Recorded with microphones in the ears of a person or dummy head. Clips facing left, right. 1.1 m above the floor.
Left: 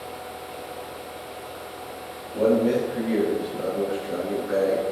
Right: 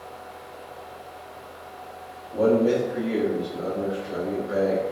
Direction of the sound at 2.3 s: 15° right (ahead or behind).